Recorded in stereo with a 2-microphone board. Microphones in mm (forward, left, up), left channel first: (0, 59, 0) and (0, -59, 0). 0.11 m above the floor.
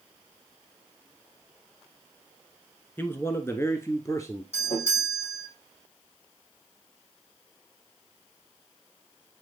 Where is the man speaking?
20° left (ahead or behind), 1.1 m; by 4.4 s 25° left (ahead or behind), 1.6 m.